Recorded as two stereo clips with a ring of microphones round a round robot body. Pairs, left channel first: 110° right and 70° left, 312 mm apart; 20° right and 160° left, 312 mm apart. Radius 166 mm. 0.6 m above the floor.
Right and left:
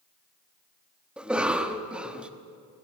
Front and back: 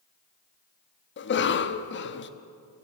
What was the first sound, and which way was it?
A cough, 15° right.